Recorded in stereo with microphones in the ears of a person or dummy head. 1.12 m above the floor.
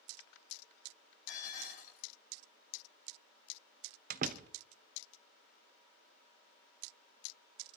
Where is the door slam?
45° right (ahead or behind), 0.7 m.